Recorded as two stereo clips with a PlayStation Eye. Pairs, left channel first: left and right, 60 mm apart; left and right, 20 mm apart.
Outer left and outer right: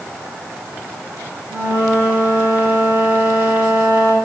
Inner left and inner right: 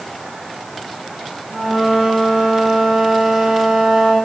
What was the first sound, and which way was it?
A flute, 20° right (ahead or behind).